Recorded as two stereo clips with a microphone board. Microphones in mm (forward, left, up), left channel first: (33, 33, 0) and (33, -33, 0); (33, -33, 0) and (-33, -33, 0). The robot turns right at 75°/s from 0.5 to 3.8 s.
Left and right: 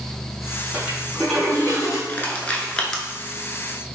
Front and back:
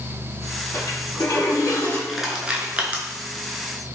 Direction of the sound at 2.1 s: 90° left.